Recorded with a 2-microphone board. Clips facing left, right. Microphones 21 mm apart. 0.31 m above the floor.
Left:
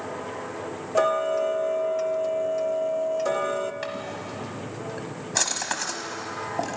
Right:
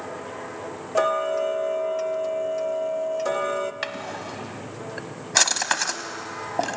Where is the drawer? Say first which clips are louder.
Right 1 dB; 35° right (ahead or behind), 1.1 m.